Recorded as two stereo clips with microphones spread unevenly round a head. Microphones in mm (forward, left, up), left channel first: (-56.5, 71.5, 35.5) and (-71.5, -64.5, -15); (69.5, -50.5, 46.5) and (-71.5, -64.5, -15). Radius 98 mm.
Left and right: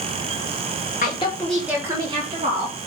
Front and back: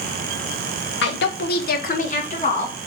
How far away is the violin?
No violin in this recording.